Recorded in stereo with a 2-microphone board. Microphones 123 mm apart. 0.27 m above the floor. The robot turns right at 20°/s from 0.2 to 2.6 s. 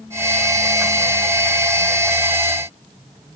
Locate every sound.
Only background noise.